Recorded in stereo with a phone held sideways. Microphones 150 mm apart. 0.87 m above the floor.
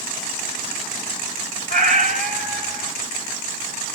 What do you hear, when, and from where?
1.7 s a cat meowing: 65° right (ahead or behind), 1.4 m